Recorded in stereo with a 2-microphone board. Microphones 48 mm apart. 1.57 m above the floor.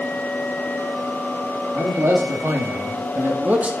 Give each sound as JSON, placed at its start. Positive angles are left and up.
{"t": 1.7, "sound": "a man speaking", "side_deg": -80, "distance_m": 3.0}